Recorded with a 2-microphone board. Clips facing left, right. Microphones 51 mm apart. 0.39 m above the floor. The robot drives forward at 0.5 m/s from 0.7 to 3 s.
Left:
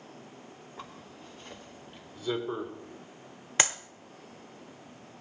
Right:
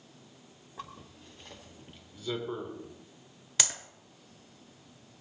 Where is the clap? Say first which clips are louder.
Left 6 dB; 35° left (ahead or behind), 1.0 m.